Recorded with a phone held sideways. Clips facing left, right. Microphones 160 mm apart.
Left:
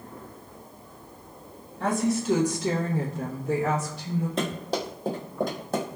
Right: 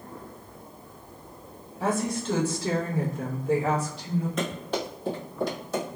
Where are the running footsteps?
30° left (ahead or behind), 1.4 m; by 5.9 s 50° left (ahead or behind), 1.4 m.